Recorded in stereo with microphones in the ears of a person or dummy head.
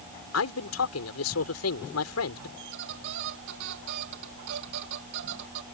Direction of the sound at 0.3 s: 80° left.